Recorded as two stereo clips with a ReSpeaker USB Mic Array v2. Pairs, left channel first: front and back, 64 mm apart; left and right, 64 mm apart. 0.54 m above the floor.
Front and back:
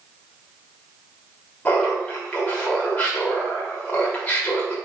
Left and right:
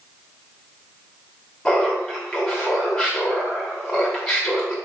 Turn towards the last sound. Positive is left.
turn(degrees=25)